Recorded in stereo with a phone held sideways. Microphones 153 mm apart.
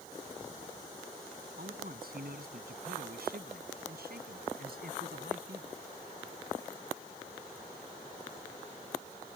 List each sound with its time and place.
1.6 s a man speaking: 75° right (ahead or behind); by 5.8 s 85° right